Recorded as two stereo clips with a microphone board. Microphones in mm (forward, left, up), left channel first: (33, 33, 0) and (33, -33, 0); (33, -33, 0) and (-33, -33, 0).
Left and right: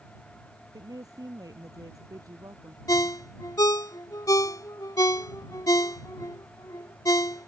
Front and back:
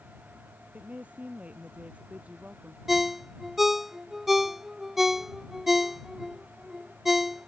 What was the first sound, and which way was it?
A woman speaking, 110° right.